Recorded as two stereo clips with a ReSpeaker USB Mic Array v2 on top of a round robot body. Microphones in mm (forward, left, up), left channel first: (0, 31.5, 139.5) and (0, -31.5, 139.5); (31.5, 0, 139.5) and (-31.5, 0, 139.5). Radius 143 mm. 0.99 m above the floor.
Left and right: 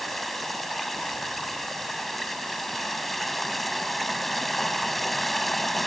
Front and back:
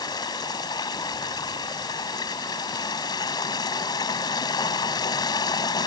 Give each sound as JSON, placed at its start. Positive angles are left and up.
{"t": 0.0, "sound": "running water", "azimuth_deg": 0}